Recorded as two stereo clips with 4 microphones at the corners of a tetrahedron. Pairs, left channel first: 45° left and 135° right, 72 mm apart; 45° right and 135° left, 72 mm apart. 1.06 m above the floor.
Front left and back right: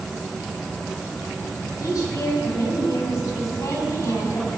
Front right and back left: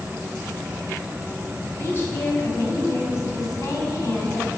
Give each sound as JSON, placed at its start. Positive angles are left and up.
{"t": 1.8, "sound": "a woman speaking", "azimuth_deg": 15, "distance_m": 5.0}